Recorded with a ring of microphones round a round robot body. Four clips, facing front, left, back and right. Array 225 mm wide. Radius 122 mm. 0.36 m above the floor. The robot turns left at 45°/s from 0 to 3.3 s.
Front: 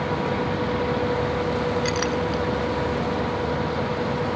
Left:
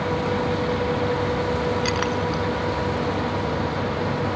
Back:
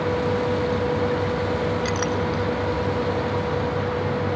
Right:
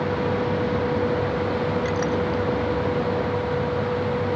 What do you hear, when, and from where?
1.9 s a clink: 85° left; by 2.4 s 60° left